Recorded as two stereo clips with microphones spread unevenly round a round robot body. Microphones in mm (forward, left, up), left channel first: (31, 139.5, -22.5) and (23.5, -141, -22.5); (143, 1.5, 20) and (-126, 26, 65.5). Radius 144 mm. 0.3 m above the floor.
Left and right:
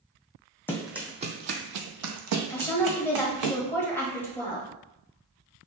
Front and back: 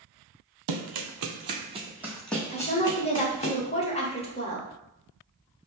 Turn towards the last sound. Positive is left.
turn(degrees=15)